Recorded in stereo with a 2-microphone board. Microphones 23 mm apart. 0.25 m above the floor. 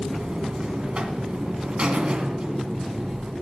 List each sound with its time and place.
0.1 s a buzzer: 45° right (ahead or behind), 1.7 m